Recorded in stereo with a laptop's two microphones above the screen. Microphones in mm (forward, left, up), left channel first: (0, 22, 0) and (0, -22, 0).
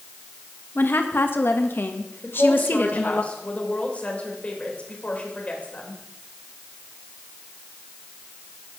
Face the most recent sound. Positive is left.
turn(degrees=30)  # may be behind; listen again after turning